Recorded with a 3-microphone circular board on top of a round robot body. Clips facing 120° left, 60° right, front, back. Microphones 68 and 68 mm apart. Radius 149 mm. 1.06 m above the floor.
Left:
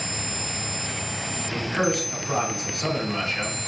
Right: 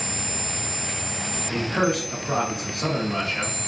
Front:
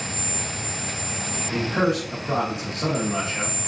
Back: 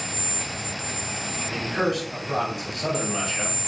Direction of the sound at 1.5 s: 5° right.